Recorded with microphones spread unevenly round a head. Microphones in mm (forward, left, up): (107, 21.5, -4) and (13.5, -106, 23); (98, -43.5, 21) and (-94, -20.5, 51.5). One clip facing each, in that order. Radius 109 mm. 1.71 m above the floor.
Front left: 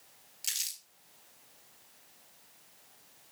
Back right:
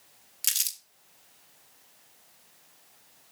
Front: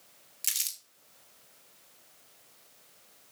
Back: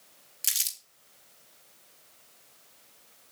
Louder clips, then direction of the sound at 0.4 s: Back right 6 dB, back 2 dB; 105° right.